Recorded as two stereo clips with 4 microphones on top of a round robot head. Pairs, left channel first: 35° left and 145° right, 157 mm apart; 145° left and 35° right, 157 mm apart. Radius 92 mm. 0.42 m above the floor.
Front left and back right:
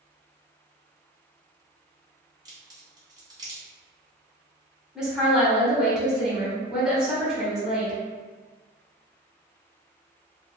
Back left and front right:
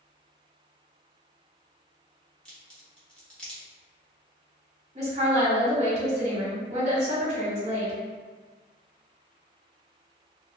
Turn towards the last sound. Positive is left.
turn(degrees=-60)